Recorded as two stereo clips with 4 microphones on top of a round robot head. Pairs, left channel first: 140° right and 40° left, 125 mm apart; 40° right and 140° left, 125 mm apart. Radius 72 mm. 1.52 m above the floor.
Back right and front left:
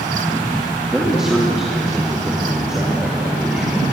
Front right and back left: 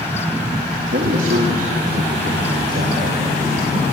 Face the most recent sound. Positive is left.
turn(degrees=125)